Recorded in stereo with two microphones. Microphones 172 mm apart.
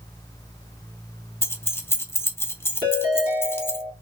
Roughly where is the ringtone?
Right.